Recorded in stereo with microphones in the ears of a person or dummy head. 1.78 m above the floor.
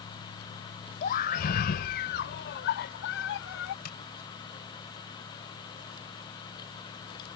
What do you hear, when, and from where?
1.0 s a scream: 45° left (ahead or behind); by 3.8 s 70° left (ahead or behind)
3.9 s tapping: 50° left (ahead or behind)